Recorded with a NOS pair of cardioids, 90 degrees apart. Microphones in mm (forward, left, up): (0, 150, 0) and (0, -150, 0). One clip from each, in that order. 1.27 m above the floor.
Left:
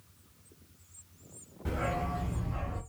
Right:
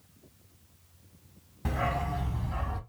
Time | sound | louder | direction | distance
1.6 | a dog barking | right 2 dB | 70° right | 2.5 m